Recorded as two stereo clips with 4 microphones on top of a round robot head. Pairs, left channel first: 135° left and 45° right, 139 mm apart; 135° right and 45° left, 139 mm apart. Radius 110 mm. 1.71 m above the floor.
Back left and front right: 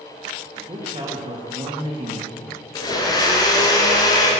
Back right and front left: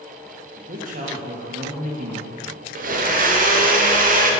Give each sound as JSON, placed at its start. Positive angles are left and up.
{"t": 0.6, "sound": "a man speaking", "azimuth_deg": 15, "distance_m": 1.6}
{"t": 2.8, "sound": "a blender", "azimuth_deg": 70, "distance_m": 1.2}